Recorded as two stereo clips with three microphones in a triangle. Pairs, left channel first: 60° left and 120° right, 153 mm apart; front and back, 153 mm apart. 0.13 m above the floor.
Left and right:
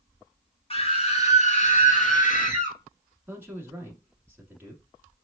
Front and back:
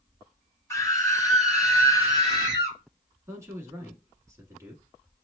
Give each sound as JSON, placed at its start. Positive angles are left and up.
{"t": 0.7, "sound": "a scream", "azimuth_deg": 60, "distance_m": 1.3}
{"t": 3.3, "sound": "a man speaking", "azimuth_deg": -165, "distance_m": 1.0}